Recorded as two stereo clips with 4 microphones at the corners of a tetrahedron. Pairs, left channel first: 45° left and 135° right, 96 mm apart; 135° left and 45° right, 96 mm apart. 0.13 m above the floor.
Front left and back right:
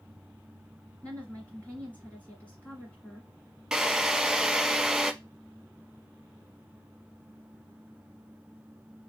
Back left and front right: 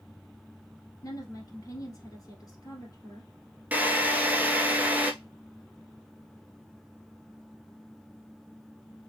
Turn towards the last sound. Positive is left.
turn(degrees=-65)